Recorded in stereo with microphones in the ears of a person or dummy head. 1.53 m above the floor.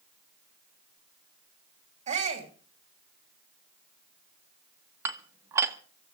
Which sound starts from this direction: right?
A shout, at 2.1 s.